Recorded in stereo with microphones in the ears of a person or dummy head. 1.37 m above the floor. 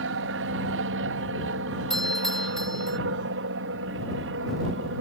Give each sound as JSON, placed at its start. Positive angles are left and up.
{"t": 0.0, "sound": "an aircraft", "side_deg": -60}
{"t": 1.9, "sound": "a doorbell", "side_deg": 0}